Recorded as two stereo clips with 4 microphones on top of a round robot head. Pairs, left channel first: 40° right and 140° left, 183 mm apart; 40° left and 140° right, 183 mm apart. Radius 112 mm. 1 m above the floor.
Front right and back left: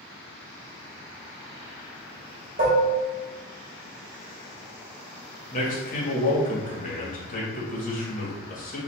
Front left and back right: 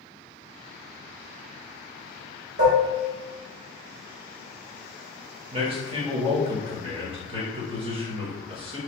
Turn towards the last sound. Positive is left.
turn(degrees=-80)